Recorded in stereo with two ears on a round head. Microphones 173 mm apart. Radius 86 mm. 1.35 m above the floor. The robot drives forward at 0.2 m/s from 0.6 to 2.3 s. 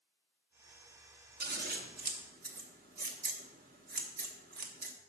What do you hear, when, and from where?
1.4 s scissors: 50° right (ahead or behind), 1.0 m